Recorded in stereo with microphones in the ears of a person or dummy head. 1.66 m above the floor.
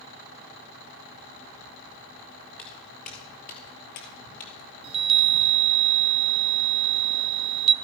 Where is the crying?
No crying in this recording.